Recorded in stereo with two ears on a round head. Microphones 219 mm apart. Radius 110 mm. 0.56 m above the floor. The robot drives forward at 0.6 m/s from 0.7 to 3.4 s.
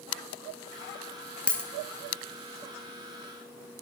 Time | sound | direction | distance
1.5 | a dropped coin | 5° left (ahead or behind) | 0.8 m